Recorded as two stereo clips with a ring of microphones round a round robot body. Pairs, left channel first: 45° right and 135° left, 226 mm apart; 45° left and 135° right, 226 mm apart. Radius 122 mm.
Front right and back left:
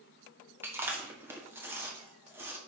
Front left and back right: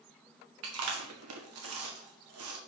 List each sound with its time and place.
0.6 s chewing: 145° right, 1.6 m